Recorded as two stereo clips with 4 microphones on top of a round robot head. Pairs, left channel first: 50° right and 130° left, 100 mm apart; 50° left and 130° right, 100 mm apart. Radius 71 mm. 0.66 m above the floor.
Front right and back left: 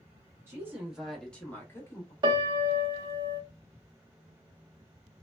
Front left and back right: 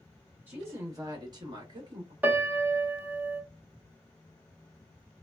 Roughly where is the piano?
Behind.